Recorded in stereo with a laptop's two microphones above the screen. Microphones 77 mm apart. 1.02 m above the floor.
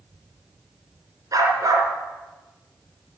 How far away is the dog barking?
About 3.5 m.